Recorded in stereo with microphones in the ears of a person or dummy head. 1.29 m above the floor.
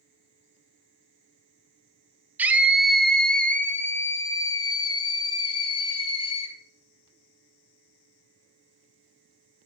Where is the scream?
10° right (ahead or behind), 1.6 m; by 6.5 s 35° left (ahead or behind), 3.5 m.